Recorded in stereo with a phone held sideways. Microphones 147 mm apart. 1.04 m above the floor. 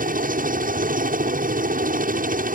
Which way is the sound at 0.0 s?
60° right (ahead or behind).